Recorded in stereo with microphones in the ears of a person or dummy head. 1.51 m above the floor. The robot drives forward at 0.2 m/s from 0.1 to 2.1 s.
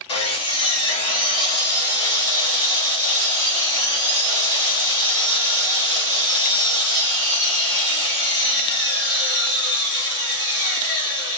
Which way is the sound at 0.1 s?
30° left (ahead or behind).